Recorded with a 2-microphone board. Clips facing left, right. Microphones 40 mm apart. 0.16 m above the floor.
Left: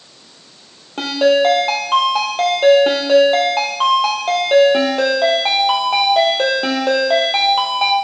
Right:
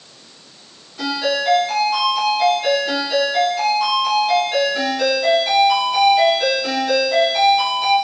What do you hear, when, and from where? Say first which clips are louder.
1.0 s a ringtone: left 7 dB; 75° left (ahead or behind), 4 m